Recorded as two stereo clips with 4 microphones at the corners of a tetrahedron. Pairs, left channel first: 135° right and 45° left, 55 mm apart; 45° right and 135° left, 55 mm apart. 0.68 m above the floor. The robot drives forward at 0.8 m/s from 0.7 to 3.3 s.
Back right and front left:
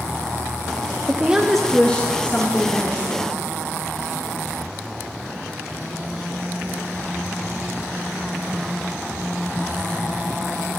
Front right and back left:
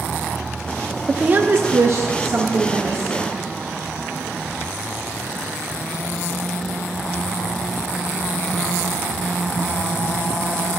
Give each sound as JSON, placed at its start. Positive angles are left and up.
{"t": 1.1, "sound": "a woman speaking", "azimuth_deg": 70, "distance_m": 0.5}